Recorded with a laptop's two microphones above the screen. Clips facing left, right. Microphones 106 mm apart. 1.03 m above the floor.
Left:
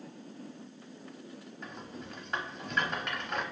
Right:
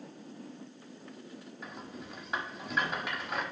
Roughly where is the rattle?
Centre.